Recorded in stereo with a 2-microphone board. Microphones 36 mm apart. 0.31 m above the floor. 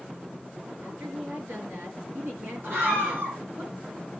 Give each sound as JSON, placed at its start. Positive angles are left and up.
{"t": 0.8, "sound": "a woman speaking", "side_deg": -60, "distance_m": 4.5}
{"t": 2.6, "sound": "a scream", "side_deg": -60, "distance_m": 4.5}